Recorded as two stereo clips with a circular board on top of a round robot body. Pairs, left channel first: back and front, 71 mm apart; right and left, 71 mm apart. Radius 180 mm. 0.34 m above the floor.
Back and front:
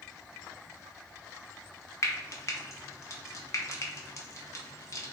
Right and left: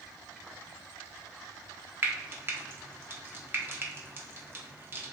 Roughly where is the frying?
Behind left.